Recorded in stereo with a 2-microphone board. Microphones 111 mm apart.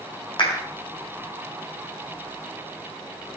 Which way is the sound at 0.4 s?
50° left (ahead or behind).